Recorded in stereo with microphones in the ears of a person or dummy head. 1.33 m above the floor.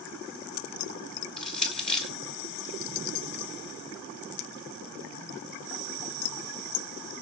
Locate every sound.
1.4 s crushing: 5° left (ahead or behind), 5 m